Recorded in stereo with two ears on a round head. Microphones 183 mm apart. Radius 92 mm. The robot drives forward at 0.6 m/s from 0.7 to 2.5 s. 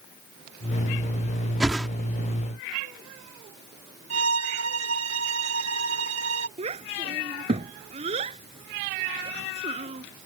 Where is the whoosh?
5° right (ahead or behind).